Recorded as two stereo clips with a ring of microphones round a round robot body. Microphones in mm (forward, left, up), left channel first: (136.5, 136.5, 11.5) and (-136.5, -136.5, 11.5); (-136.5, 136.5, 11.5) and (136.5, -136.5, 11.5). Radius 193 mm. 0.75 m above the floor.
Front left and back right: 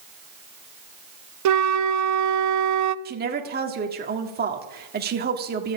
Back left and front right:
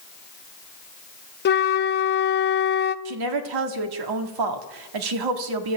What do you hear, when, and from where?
1.4 s a flute: 165° right, 0.7 m
3.0 s a woman speaking: 70° right, 1.8 m